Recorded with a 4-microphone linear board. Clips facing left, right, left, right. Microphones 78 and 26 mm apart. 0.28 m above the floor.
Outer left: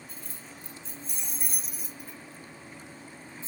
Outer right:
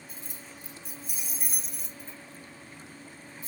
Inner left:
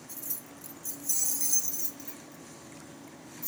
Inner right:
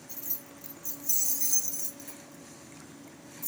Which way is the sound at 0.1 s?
20° right (ahead or behind).